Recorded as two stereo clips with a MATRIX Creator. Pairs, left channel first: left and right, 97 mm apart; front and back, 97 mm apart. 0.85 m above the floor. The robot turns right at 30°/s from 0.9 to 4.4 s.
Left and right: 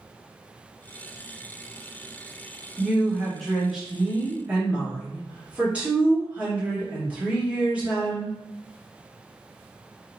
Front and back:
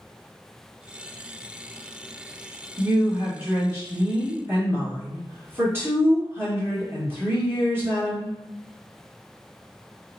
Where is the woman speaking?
160° left, 1.0 m; by 8.3 s 150° right, 1.0 m.